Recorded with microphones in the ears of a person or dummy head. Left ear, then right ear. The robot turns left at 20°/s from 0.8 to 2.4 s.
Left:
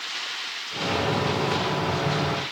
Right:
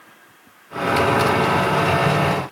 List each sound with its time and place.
Only background noise.